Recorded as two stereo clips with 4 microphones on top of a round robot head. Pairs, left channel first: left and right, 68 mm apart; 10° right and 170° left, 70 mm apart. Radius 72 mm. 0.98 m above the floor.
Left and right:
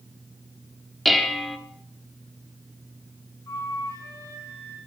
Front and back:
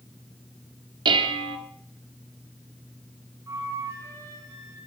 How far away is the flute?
About 6.5 m.